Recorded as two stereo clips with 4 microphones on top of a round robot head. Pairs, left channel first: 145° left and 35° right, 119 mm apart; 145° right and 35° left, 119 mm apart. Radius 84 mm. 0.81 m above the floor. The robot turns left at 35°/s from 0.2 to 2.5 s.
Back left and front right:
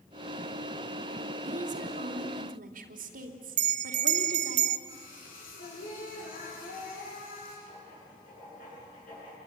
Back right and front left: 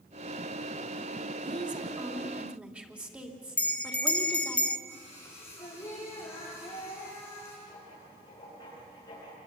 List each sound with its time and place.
1.4 s a woman speaking: 5° right, 2.5 m; by 4.6 s 45° right, 2.5 m
3.6 s a bell: 65° right, 1.0 m
4.9 s singing: 145° left, 8 m
7.7 s writing: 155° left, 9 m